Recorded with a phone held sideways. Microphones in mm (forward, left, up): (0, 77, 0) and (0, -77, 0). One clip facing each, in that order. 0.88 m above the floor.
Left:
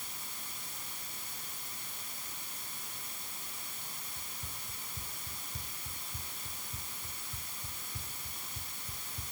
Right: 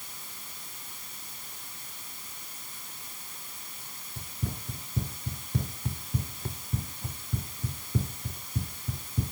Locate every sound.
4.2 s running footsteps: 70° right (ahead or behind); by 9.3 s 65° right (ahead or behind)